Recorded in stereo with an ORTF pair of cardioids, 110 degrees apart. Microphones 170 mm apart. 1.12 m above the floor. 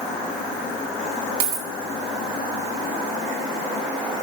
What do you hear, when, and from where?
1.4 s a dropped coin: 70° right, 3.5 m